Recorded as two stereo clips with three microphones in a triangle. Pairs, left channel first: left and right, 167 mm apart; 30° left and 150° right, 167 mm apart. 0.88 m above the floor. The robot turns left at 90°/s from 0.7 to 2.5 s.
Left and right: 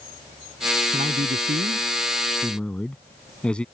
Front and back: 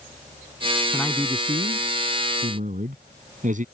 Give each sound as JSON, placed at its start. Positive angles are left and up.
{"t": 0.9, "sound": "a man speaking", "azimuth_deg": -45}